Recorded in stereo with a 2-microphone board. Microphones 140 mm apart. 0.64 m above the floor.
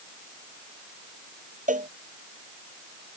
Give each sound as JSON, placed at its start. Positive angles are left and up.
{"t": 1.7, "sound": "a cowbell", "side_deg": -65}